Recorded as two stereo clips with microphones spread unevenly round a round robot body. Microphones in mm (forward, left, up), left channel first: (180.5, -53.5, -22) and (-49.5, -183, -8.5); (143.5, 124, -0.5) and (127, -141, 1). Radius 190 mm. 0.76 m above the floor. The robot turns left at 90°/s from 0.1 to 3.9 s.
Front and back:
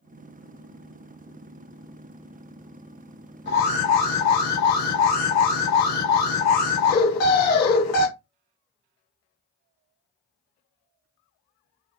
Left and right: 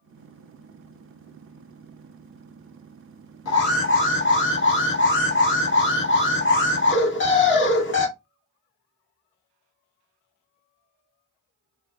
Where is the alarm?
85° left, 1.2 m; by 8.1 s 45° left, 1.2 m.